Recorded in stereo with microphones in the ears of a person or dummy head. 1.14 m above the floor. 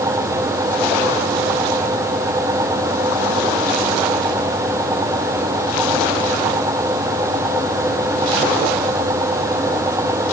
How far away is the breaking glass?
I don't hear breaking glass.